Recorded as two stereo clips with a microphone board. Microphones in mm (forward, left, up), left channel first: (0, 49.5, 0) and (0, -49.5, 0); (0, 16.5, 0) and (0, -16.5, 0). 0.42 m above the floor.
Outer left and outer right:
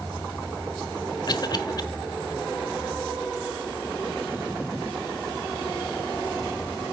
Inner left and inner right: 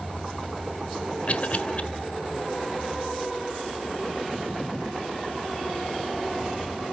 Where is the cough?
45° left (ahead or behind), 1.3 m.